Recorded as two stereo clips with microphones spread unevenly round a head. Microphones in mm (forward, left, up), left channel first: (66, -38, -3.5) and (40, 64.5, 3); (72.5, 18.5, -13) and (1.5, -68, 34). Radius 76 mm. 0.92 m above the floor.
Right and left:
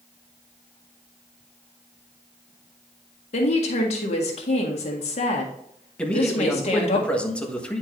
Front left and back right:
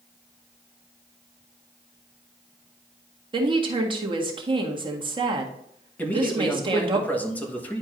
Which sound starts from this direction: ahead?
A man speaking, at 6.0 s.